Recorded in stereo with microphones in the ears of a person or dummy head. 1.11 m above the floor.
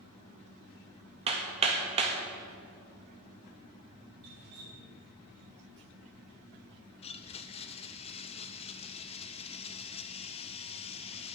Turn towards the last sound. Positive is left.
turn(degrees=30)  # may be behind; listen again after turning